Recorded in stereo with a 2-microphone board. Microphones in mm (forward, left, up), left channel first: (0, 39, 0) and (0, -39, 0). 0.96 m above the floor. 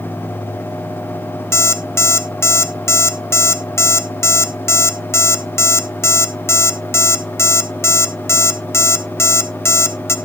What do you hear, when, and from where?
1.5 s an alarm clock: 35° left (ahead or behind), 0.7 m